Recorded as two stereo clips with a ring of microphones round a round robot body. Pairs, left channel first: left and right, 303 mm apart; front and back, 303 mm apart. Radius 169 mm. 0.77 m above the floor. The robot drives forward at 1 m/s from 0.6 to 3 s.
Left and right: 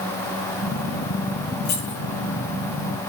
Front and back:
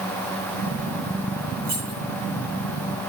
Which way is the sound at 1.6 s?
95° left.